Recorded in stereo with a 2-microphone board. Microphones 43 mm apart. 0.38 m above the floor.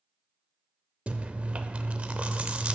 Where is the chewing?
30° right (ahead or behind), 0.6 m.